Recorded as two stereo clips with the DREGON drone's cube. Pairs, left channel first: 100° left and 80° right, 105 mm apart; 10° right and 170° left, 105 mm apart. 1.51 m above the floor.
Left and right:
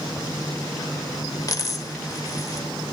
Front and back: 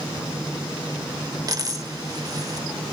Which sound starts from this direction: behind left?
A dropped coin, at 1.5 s.